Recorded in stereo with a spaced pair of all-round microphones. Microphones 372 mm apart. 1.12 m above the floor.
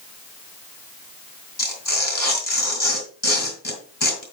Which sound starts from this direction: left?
Tearing paper, at 1.6 s.